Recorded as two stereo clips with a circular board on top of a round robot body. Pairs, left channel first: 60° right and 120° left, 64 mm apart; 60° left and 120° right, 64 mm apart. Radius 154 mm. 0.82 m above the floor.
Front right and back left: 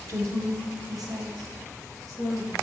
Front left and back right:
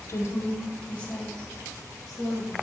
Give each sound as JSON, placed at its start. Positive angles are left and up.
{"t": 0.1, "sound": "a woman speaking", "azimuth_deg": 90, "distance_m": 0.7}